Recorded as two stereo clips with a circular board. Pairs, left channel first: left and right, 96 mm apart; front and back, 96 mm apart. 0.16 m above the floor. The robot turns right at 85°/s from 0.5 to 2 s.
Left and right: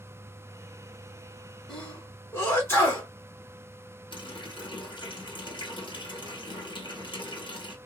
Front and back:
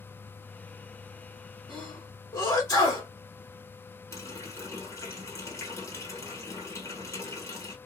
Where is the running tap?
60° left, 2 m.